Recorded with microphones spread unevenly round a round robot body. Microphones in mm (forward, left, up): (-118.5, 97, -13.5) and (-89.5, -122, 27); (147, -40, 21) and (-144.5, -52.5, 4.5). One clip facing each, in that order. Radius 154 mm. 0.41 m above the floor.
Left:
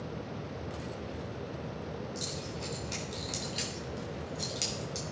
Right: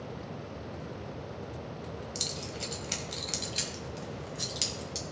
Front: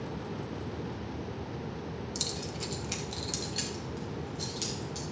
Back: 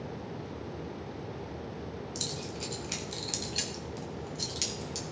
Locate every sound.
2.1 s keys jangling: 70° right, 1.6 m; by 5.0 s 130° right, 2.5 m